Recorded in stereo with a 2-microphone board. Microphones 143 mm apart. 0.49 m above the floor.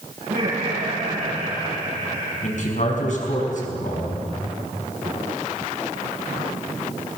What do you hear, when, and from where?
0.2 s laughter: 80° right, 9.5 m
2.4 s a man speaking: 60° left (ahead or behind), 5.5 m